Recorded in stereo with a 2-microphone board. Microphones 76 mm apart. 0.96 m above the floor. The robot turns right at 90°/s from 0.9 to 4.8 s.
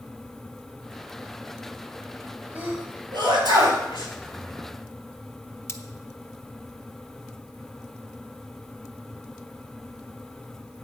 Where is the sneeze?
25° right (ahead or behind), 5 m; by 3.8 s 40° right (ahead or behind), 5 m.